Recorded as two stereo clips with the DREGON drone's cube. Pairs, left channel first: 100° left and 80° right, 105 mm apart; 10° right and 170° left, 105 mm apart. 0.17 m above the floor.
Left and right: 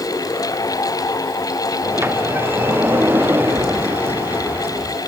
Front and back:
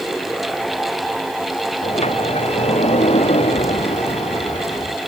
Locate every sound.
1.8 s a sliding door: 10° right